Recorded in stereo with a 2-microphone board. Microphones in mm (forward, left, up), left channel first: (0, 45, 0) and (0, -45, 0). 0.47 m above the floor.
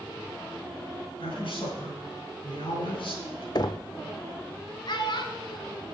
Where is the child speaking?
55° left (ahead or behind), 1.7 m.